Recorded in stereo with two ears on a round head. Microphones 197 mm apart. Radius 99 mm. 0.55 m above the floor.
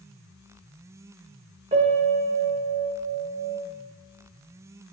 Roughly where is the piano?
Right.